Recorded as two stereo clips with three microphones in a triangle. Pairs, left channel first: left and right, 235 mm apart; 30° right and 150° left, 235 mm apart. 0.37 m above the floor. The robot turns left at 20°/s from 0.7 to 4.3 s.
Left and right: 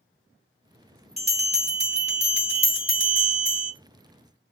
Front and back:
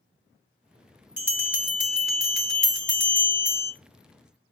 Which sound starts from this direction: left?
A bell, at 1.2 s.